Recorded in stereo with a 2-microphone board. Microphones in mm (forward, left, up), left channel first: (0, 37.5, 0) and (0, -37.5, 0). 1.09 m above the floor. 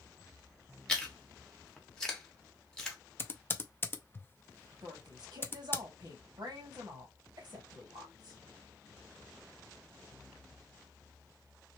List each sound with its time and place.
0.9 s chewing: 10° left (ahead or behind), 1.0 m
3.2 s typing on a keyboard: 30° left (ahead or behind), 0.5 m
4.8 s a woman speaking: 70° right (ahead or behind), 1.8 m